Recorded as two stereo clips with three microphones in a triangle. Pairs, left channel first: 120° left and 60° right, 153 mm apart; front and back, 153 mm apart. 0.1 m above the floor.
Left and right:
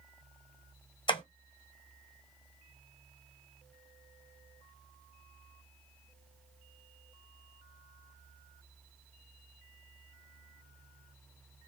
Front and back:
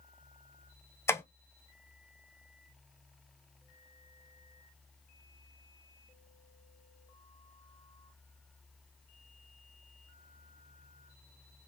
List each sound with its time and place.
1.1 s tapping: 70° left, 0.8 m